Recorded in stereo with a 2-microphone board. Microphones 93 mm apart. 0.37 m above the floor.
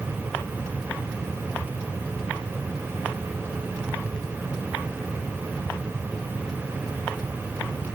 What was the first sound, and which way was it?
Only background noise.